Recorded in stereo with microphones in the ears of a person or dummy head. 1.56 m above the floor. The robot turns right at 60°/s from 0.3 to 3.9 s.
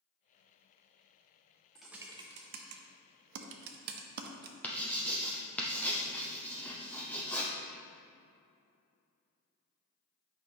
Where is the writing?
10° left (ahead or behind), 0.7 m.